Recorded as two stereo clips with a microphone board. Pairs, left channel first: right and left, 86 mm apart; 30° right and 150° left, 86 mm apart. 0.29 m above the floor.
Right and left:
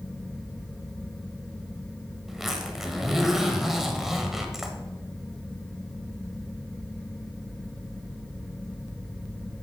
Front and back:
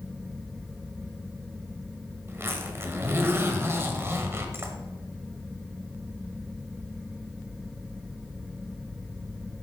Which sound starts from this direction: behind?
A zipper, at 2.3 s.